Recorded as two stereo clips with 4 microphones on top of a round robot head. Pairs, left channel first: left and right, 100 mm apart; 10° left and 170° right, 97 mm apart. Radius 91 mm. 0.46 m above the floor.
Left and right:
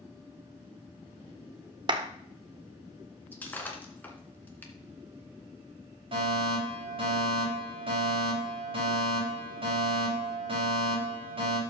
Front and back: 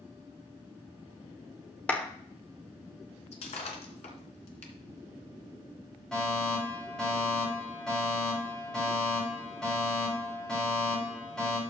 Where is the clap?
65° right, 1.2 m.